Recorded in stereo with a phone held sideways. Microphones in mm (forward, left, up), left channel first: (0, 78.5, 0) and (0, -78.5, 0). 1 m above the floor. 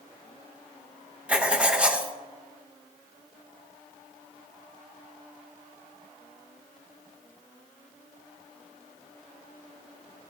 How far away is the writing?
About 0.7 m.